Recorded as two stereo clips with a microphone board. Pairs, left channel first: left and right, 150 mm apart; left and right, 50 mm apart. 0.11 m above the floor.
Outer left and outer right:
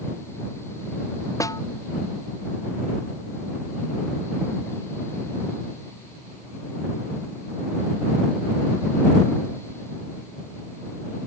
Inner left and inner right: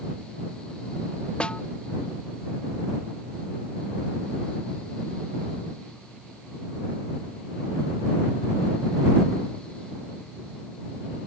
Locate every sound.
1.4 s a snare drum: 20° left (ahead or behind)